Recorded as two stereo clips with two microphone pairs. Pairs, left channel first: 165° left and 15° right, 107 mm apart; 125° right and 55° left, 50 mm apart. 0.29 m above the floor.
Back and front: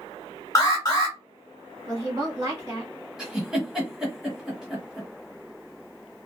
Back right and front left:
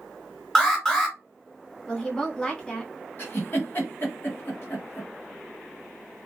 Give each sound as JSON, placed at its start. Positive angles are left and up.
{"t": 0.6, "sound": "an alarm", "azimuth_deg": 150, "distance_m": 1.5}
{"t": 1.9, "sound": "a woman speaking", "azimuth_deg": -60, "distance_m": 1.7}
{"t": 3.2, "sound": "a giggle", "azimuth_deg": -100, "distance_m": 1.2}